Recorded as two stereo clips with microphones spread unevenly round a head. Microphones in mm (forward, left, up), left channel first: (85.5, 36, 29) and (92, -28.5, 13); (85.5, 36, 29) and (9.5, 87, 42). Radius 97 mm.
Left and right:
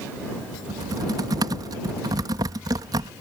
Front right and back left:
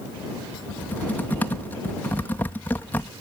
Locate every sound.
0.7 s typing on a keyboard: 110° right